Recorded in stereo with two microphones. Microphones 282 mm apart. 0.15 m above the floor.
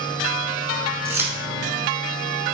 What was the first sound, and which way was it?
Keys jangling, 10° right (ahead or behind).